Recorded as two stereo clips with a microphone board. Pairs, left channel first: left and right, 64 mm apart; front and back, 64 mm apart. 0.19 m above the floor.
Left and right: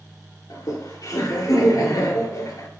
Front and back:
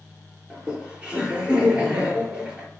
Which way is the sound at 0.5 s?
105° left.